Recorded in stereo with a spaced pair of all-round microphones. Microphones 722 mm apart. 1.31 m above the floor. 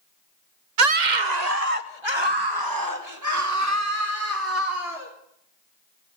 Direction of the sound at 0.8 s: 60° right (ahead or behind).